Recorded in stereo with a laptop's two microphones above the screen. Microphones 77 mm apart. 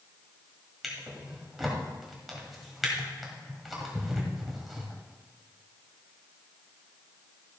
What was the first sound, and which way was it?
A drawer, centre (ahead or behind).